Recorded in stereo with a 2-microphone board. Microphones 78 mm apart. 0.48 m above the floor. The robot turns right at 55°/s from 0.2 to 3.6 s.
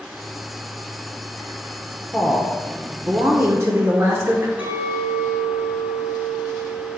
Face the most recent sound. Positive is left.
turn(degrees=-20)  # may be behind; listen again after turning